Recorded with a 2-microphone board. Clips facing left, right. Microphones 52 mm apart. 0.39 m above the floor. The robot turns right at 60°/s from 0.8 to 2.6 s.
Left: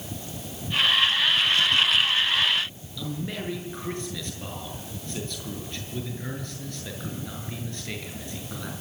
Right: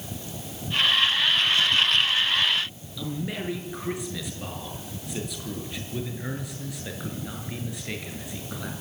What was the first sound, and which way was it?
A man speaking, 10° right (ahead or behind).